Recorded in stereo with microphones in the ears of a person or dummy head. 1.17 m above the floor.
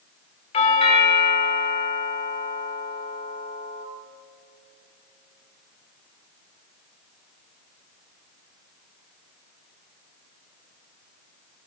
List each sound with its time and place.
0.5 s a doorbell: 30° left (ahead or behind), 1.6 m